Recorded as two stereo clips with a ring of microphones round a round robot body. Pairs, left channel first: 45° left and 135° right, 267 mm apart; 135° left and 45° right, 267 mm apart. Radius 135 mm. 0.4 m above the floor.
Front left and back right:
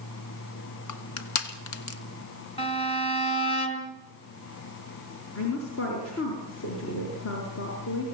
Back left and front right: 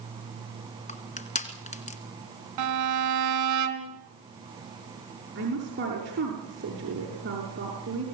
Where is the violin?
25° right, 3.5 m.